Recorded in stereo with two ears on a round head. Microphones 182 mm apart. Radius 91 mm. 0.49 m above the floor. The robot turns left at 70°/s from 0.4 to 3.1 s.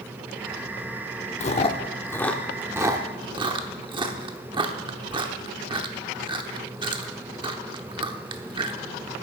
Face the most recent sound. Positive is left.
turn(degrees=-25)  # may be behind; listen again after turning